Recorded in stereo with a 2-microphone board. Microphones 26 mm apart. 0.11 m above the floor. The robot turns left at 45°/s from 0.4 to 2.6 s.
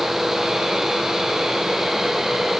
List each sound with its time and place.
Only background noise.